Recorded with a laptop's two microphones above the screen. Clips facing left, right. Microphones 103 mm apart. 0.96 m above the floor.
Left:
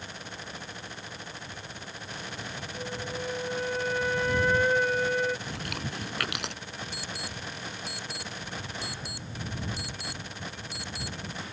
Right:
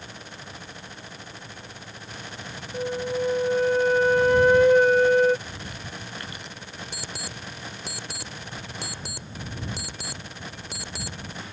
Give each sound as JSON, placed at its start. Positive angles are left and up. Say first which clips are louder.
{"t": 2.7, "sound": "a flute", "louder": "right 11 dB", "side_deg": -60}
{"t": 5.5, "sound": "chewing", "louder": "left 2 dB", "side_deg": 75}
{"t": 6.9, "sound": "an alarm clock", "louder": "right 1 dB", "side_deg": -70}